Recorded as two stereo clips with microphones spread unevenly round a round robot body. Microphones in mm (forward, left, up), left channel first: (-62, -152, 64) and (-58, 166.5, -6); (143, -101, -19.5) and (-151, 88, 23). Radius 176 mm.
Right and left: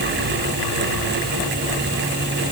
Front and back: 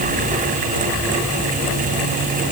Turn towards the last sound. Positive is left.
No sound to turn to.